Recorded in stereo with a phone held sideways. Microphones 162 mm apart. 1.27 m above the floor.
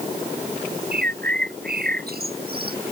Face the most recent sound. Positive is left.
turn(degrees=-75)  # may be behind; listen again after turning